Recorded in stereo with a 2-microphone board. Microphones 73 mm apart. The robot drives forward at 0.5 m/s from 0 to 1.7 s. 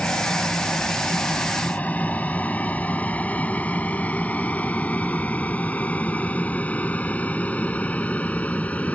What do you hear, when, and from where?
0.0 s an aircraft: 20° left (ahead or behind)